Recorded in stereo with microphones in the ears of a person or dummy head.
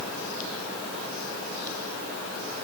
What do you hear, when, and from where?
Only background noise.